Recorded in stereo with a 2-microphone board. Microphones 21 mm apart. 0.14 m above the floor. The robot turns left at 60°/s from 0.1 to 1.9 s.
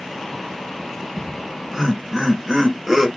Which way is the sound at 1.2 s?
25° right (ahead or behind).